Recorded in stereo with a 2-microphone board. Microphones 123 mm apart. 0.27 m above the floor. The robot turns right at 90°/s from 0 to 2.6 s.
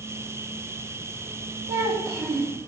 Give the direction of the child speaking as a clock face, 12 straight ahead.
2 o'clock.